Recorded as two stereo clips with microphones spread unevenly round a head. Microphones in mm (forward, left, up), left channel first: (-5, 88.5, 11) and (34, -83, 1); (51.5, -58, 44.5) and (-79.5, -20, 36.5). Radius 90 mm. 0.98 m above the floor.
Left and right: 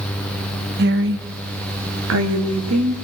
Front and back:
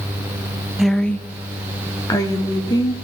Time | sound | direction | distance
0.8 | a woman speaking | 110° right | 1.3 m